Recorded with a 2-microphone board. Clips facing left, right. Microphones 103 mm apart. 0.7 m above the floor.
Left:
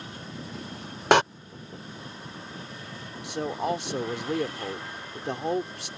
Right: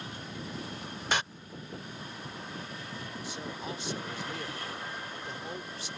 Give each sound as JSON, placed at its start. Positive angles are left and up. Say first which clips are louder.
{"t": 1.1, "sound": "a door slam", "louder": "left 13 dB", "side_deg": 75}
{"t": 3.2, "sound": "a man speaking", "louder": "left 13 dB", "side_deg": 70}